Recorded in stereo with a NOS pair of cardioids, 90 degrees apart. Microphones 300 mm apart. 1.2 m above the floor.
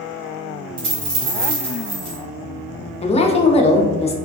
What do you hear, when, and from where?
0.8 s a dropped coin: 70° right, 1.6 m
3.0 s a woman speaking: 20° left, 0.5 m